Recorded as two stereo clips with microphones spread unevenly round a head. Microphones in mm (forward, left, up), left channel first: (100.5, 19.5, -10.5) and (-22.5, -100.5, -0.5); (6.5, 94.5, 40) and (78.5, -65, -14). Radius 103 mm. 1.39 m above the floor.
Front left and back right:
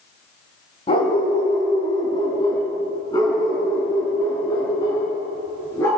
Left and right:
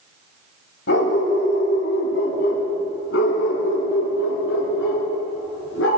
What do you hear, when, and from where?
0.9 s a dog barking: 110° left, 3.5 m; by 5.9 s 120° left, 8 m